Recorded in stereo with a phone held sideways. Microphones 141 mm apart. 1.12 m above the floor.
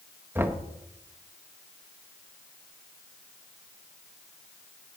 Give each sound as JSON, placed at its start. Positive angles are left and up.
{"t": 0.3, "sound": "knocking", "side_deg": -15, "distance_m": 1.1}